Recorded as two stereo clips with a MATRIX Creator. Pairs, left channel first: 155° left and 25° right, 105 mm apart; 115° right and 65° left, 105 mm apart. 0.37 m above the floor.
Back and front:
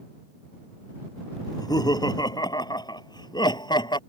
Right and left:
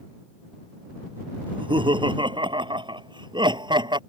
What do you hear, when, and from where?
1.5 s laughter: 105° left; by 4.0 s 110° left